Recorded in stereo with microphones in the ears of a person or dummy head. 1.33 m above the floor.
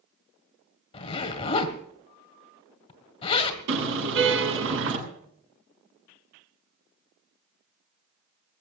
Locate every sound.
0.9 s a zipper: 35° left (ahead or behind), 1.9 m
3.7 s a car horn: 70° right (ahead or behind), 7 m